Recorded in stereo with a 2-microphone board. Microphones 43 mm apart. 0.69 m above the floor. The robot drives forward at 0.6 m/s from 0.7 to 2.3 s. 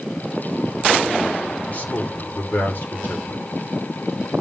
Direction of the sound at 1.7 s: 40° left (ahead or behind).